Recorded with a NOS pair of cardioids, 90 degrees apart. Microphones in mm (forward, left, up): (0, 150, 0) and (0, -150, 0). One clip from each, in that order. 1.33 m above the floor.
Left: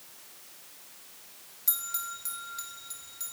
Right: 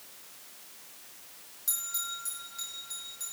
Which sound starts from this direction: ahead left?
A bell, at 1.7 s.